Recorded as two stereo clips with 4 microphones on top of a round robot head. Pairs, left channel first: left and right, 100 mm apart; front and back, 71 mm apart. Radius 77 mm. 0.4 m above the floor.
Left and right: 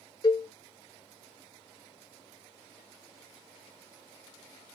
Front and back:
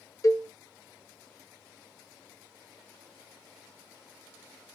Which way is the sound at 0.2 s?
45° left.